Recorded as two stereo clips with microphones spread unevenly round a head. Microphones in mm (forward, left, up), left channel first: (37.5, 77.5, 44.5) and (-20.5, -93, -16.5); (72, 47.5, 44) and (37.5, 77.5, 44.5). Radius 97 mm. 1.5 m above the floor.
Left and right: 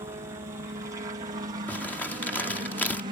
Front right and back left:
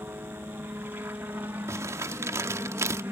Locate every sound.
0.0 s a helicopter: 170° right; by 3.1 s 165° right
1.7 s crumpling: 145° left